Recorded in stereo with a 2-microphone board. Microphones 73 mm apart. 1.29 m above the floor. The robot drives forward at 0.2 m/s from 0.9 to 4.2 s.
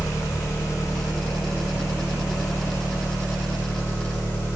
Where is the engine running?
40° left (ahead or behind), 1.3 m; by 4.6 s 25° left (ahead or behind), 1.8 m.